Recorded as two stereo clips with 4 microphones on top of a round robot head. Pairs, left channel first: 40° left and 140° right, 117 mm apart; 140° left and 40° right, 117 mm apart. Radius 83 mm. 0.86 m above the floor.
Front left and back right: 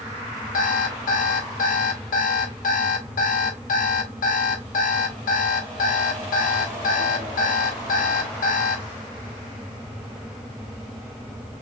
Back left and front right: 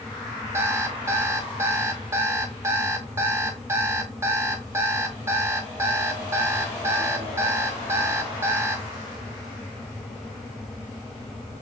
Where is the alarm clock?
30° left, 0.7 m.